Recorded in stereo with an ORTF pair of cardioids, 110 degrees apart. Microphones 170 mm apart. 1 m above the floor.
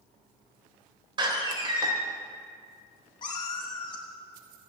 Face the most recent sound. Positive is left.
turn(degrees=30)